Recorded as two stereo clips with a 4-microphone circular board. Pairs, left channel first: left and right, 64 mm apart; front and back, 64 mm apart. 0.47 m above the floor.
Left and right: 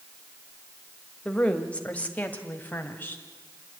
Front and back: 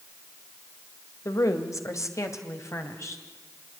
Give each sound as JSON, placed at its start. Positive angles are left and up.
{"t": 1.2, "sound": "a woman speaking", "azimuth_deg": 20, "distance_m": 2.0}